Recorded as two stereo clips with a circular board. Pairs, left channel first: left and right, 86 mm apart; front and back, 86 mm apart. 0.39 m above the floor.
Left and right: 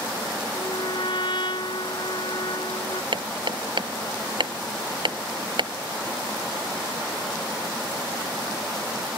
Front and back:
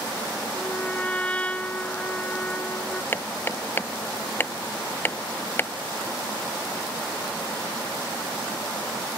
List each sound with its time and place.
0.5 s a trumpet: 75° left
3.1 s hammering: 65° right